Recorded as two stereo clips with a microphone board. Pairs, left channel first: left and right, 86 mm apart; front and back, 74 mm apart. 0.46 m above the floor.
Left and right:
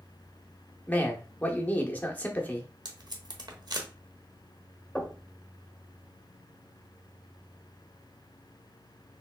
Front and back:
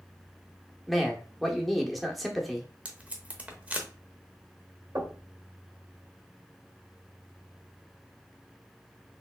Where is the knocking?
175° left, 1.3 m.